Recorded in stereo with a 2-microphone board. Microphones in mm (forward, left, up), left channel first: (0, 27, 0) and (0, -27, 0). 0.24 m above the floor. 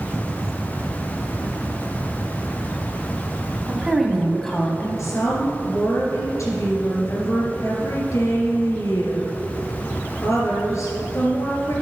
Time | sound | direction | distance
3.7 | a woman speaking | 15° right (ahead or behind) | 2 m
5.0 | a woman speaking | 65° left (ahead or behind) | 3.5 m